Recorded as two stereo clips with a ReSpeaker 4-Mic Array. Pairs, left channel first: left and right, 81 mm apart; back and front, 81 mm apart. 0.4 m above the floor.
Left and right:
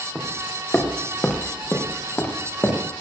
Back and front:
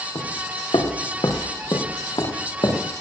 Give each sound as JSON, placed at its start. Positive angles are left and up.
{"t": 0.1, "sound": "footsteps", "azimuth_deg": 170, "distance_m": 3.0}